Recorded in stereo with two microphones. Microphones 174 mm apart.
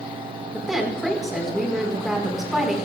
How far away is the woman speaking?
About 4.5 m.